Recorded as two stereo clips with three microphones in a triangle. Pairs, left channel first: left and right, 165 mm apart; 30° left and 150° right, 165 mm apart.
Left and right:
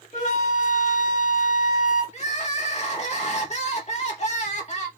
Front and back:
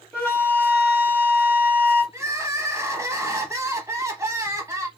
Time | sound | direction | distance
0.1 | a flute | 110° left | 1.4 m
2.1 | crying | 140° left | 0.7 m